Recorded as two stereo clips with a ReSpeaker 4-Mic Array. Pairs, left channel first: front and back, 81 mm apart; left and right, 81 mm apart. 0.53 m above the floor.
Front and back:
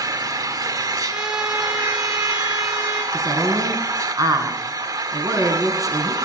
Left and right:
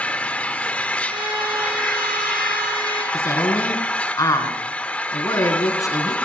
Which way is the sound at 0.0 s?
160° left.